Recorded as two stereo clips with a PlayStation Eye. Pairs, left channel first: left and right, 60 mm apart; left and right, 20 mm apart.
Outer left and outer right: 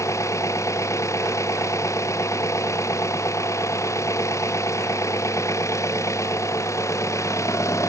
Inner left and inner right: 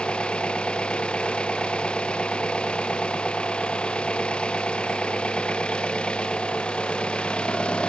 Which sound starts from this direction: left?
An engine running, at 0.0 s.